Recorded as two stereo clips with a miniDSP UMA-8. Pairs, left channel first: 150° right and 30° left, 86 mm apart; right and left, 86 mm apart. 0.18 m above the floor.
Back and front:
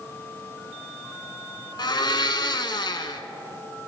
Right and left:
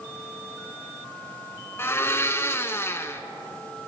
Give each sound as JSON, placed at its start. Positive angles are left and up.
{"t": 1.8, "sound": "a blender", "azimuth_deg": -145, "distance_m": 0.7}